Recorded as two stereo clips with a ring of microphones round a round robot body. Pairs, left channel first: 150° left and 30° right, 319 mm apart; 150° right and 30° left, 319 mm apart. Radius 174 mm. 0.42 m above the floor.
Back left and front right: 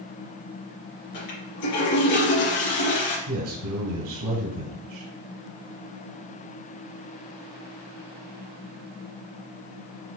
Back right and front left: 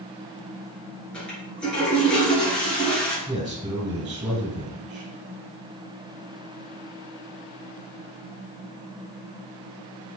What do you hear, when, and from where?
1.1 s a toilet flushing: 125° left, 3.5 m
3.3 s a man speaking: 45° right, 2.5 m